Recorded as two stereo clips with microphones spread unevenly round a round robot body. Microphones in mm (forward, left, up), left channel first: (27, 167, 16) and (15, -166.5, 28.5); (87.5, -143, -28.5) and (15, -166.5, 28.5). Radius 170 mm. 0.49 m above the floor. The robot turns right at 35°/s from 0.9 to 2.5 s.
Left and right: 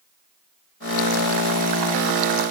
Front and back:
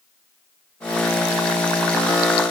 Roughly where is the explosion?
I don't hear an explosion.